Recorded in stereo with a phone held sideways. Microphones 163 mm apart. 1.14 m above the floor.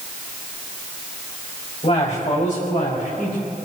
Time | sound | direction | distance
1.8 | a man speaking | 45° left (ahead or behind) | 5.5 m